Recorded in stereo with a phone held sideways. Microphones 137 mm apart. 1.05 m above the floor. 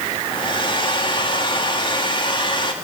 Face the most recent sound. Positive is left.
turn(degrees=35)  # may be behind; listen again after turning